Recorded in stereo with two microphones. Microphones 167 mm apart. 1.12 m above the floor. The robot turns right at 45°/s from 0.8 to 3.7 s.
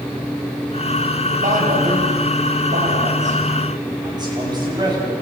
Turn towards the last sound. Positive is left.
turn(degrees=-25)  # may be behind; listen again after turning